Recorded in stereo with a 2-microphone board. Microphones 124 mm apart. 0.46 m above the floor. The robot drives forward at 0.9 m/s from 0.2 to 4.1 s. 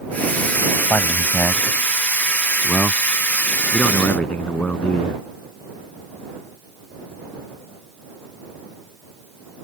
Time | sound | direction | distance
0.9 | a man speaking | 20° left (ahead or behind) | ?